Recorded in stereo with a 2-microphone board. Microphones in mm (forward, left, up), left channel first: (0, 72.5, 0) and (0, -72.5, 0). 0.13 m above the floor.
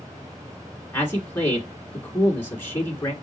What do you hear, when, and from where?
0.9 s a man speaking: 15° left (ahead or behind), 1.6 m